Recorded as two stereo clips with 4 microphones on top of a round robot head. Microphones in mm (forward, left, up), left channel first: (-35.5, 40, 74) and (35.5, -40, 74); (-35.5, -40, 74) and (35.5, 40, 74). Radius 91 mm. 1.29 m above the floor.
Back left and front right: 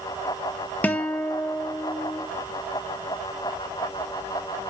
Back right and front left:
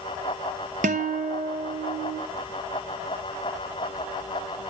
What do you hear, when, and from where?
0.8 s a guitar: 55° left, 0.6 m